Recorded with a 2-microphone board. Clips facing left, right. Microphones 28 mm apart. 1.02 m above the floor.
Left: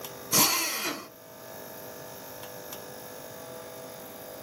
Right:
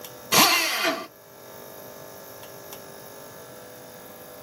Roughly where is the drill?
Right.